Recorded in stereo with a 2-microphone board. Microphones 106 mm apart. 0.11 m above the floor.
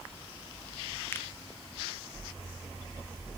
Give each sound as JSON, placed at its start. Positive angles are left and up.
{"t": 1.1, "sound": "a finger snap", "side_deg": 20, "distance_m": 1.5}